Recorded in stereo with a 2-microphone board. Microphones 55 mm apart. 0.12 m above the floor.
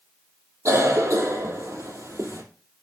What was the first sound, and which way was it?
A cough, 70° right (ahead or behind).